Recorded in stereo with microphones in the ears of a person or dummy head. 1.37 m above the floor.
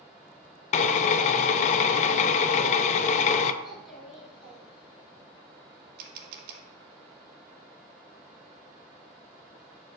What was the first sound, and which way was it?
A drill, 40° left (ahead or behind).